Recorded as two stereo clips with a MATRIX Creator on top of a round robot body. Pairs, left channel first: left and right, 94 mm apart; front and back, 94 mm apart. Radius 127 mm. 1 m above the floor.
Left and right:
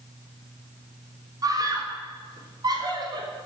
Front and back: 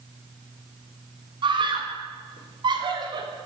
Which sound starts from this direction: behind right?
A scream, at 1.4 s.